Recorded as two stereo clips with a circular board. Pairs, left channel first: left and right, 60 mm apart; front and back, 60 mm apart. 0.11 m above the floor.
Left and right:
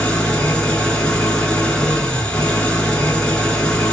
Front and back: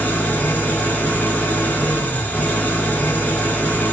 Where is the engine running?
30° left, 0.9 m.